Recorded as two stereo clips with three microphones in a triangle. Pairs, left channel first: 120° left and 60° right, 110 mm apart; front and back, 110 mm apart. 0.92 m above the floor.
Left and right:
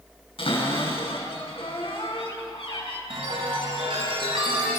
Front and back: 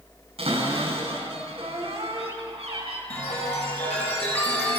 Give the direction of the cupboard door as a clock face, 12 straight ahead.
7 o'clock.